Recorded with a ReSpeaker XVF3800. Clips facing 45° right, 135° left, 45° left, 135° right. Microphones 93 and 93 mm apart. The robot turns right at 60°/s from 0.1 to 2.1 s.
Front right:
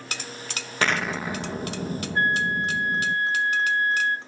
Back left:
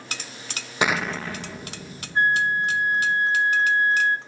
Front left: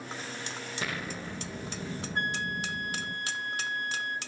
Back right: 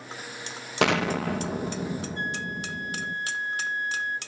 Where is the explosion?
150° right, 1.3 m; by 3.1 s 70° right, 1.3 m.